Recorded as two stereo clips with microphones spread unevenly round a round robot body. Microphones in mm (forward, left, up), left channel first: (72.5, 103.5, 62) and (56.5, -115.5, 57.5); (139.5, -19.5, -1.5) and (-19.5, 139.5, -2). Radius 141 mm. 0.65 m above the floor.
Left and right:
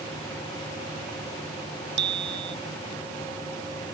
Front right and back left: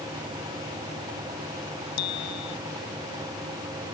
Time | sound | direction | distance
2.0 | a bicycle bell | 55° right | ?